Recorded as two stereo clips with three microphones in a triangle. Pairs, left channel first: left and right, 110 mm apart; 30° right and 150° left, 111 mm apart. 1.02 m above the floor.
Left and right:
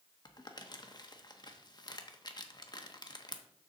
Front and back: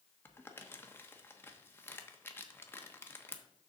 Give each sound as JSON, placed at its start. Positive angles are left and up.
{"t": 0.2, "sound": "crumpling", "azimuth_deg": 40, "distance_m": 0.9}